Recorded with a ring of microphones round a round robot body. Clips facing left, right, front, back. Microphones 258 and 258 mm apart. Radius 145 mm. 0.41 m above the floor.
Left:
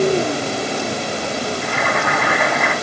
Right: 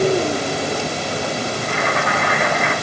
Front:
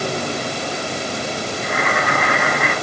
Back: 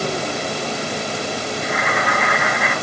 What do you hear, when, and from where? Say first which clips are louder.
1.6 s boiling: even, front 2 dB; 45° left, 4.5 m